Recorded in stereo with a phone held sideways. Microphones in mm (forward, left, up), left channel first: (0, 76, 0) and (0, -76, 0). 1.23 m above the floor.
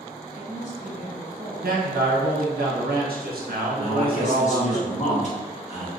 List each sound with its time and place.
0.3 s a woman speaking: 45° left (ahead or behind), 1.4 m
1.6 s a man speaking: 80° right, 0.9 m
3.8 s a man speaking: 50° left (ahead or behind), 1.4 m